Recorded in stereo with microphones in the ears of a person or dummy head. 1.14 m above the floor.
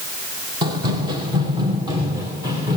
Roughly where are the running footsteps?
Right.